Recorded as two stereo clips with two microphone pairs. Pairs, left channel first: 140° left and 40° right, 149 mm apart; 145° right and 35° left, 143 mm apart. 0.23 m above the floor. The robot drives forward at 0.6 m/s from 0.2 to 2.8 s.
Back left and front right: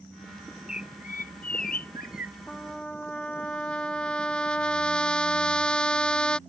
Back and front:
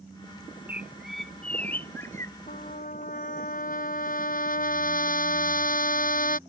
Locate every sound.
0.7 s a bird: 110° left; by 2.4 s 145° left
2.5 s a trumpet: 130° right; by 6.4 s 135° right